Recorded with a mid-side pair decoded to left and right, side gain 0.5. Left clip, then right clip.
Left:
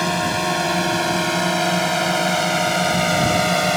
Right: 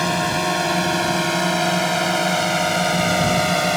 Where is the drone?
5° right; by 3.8 s straight ahead.